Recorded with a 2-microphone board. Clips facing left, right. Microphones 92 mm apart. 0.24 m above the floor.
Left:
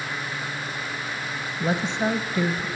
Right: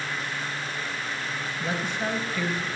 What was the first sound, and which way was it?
A woman speaking, 25° left (ahead or behind).